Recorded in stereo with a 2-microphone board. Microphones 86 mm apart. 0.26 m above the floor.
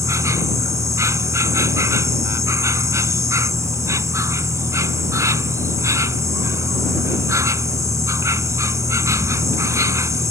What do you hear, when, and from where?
0.0 s an insect: 35° right (ahead or behind)